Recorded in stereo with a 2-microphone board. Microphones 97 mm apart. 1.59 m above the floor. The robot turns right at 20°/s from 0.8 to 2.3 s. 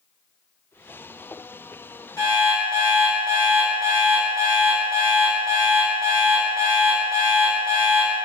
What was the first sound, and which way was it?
An alarm clock, 35° left (ahead or behind).